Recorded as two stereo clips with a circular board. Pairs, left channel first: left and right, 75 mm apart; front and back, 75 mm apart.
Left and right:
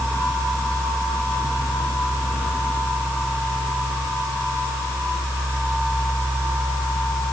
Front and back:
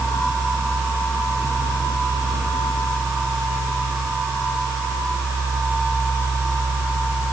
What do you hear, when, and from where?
Only background noise.